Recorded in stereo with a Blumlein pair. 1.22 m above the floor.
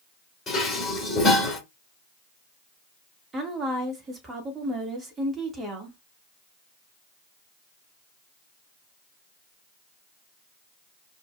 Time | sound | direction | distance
0.5 | dishes clattering | 15° left | 2.5 m
3.3 | a woman speaking | 15° right | 1.8 m